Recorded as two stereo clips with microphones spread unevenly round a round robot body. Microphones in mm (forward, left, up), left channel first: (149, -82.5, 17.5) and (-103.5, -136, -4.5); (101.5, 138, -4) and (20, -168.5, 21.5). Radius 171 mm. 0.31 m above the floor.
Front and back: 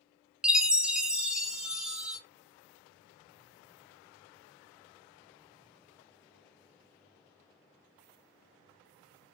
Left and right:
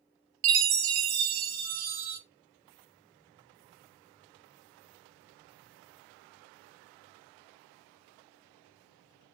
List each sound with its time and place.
0.4 s a chime: 85° right, 0.5 m